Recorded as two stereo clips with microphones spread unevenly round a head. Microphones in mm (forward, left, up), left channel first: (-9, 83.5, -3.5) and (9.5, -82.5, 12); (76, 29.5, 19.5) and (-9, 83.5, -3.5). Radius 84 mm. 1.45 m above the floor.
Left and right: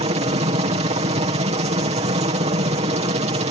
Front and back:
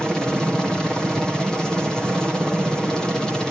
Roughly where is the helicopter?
Behind right.